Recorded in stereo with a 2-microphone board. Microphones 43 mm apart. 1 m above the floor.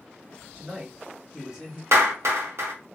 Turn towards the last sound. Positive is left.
turn(degrees=-80)